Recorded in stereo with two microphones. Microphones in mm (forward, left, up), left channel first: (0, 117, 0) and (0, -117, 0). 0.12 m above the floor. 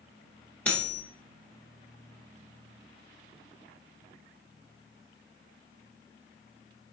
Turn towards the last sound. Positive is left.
turn(degrees=5)  # may be behind; listen again after turning